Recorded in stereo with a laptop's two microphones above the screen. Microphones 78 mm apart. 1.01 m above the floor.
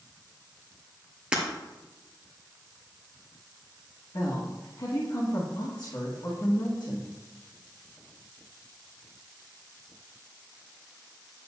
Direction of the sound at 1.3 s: 15° right (ahead or behind).